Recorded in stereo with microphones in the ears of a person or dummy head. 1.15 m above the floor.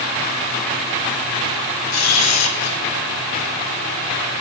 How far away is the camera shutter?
About 1.9 m.